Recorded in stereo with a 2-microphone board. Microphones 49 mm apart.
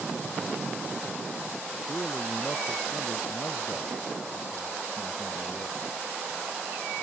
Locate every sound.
1.9 s a man speaking: 55° left (ahead or behind)